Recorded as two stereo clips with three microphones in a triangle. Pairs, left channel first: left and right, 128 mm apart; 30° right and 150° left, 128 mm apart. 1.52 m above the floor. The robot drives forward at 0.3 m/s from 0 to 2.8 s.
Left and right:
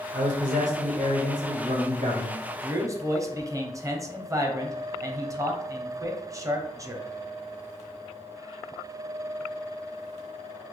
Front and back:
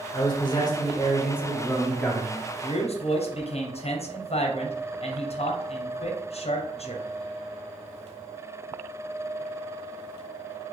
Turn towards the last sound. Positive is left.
turn(degrees=-30)